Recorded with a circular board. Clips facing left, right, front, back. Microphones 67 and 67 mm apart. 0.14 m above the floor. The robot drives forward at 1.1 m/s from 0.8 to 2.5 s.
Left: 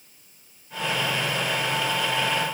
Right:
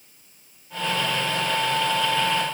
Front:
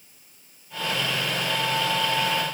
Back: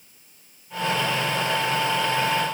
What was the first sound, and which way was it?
Only background noise.